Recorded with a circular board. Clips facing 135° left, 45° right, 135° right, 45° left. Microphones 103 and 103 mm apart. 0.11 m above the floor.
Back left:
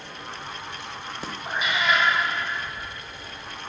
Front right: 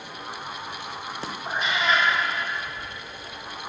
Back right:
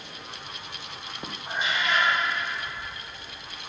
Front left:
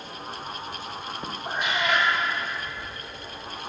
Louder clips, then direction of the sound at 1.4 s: Even, front left 2 dB; 50° left.